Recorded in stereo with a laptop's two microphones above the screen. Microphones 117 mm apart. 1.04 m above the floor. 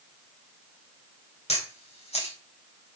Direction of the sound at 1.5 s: 65° left (ahead or behind).